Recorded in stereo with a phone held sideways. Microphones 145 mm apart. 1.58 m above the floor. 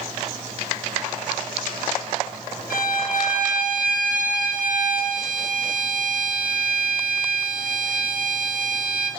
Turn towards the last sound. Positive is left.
turn(degrees=80)